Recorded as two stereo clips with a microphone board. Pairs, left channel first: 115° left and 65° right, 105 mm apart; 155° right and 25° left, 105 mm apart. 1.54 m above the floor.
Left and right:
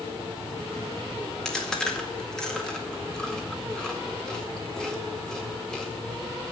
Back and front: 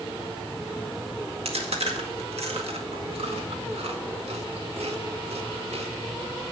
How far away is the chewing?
About 2 m.